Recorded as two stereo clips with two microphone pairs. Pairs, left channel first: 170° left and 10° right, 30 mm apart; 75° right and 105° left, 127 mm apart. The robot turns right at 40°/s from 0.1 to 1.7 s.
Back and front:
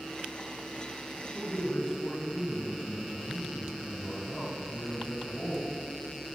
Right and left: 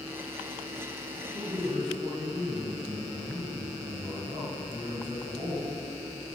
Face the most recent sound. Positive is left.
turn(degrees=145)